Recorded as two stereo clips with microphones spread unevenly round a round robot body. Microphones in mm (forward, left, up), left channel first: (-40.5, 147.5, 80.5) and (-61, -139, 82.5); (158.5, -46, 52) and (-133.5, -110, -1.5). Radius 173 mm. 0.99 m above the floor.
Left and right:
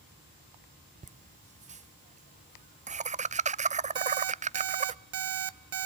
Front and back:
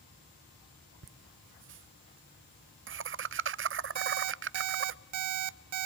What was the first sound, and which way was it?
Laughter, 155° right.